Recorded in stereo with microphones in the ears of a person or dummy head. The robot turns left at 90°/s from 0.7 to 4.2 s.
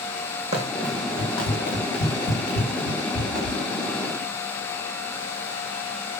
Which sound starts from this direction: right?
Running footsteps, at 0.5 s.